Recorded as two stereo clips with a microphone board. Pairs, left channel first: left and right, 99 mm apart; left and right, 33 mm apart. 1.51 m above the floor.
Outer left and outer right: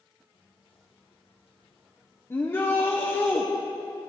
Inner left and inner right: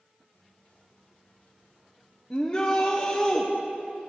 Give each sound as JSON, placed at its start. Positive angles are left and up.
{"t": 0.3, "sound": "whispering", "side_deg": 65, "distance_m": 1.4}
{"t": 2.3, "sound": "a shout", "side_deg": 25, "distance_m": 1.1}